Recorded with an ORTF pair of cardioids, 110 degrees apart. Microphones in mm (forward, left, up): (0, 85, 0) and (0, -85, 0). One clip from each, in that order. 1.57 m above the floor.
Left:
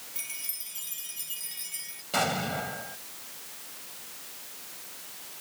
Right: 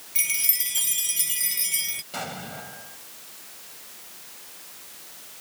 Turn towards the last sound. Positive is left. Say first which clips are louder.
# left 6 dB
turn(degrees=35)